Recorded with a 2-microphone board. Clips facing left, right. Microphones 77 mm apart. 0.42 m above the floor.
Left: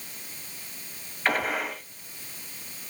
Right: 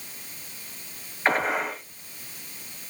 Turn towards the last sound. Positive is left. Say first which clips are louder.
# right 3 dB
turn(degrees=-25)  # may be behind; listen again after turning